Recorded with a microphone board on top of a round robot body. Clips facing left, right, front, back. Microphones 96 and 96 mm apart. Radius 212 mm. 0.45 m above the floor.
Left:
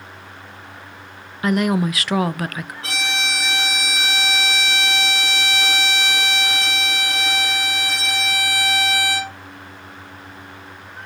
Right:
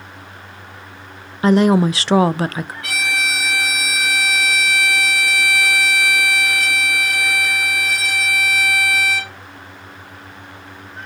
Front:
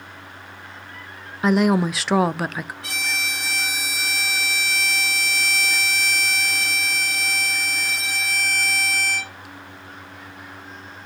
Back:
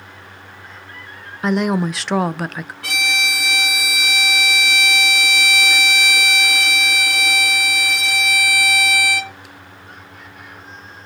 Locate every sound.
1.4 s a woman speaking: 85° right, 0.7 m
2.8 s a violin: 150° left, 1.0 m